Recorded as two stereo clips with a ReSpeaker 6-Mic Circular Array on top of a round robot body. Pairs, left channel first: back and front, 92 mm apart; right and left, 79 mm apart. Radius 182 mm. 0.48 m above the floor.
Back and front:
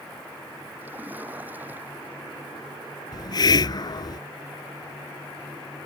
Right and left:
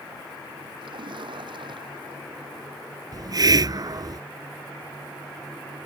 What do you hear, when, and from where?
0.8 s a splash: 70° left
3.1 s a hiss: 135° left